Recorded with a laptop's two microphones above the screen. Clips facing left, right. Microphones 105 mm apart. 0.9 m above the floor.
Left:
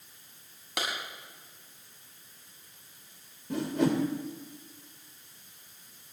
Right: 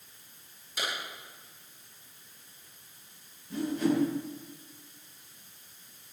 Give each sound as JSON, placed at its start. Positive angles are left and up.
{"t": 0.8, "sound": "a clap", "side_deg": 75, "distance_m": 7.0}
{"t": 3.5, "sound": "a whoosh", "side_deg": 80, "distance_m": 3.0}